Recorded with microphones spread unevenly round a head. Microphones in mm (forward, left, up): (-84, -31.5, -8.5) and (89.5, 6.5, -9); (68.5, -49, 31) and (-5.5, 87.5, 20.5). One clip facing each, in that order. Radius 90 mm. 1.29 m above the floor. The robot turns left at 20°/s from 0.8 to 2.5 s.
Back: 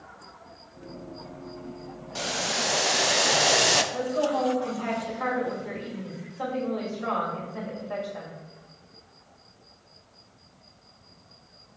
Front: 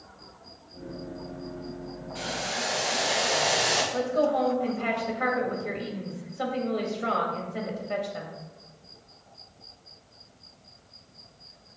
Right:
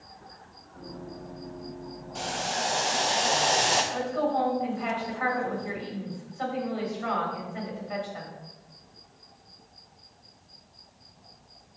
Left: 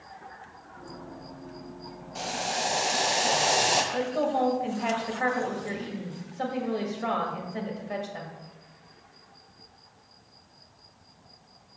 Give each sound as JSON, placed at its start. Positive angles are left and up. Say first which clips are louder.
{"t": 2.1, "sound": "boiling", "louder": "back 3 dB, even", "azimuth_deg": -160, "distance_m": 0.6}
{"t": 3.9, "sound": "a woman speaking", "louder": "front 5 dB, left 1 dB", "azimuth_deg": 75, "distance_m": 2.0}